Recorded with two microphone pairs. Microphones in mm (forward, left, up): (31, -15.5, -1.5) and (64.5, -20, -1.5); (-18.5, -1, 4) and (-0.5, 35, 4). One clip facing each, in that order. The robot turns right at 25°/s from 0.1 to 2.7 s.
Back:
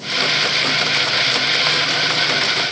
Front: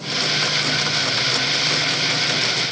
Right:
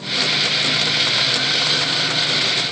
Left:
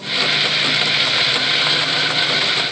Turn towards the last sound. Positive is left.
No sound to turn to.